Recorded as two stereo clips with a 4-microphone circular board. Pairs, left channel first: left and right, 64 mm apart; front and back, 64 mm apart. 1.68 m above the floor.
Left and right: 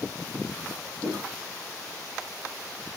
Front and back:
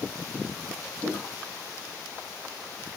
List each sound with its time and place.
1.0 s footsteps: 30° left, 2.5 m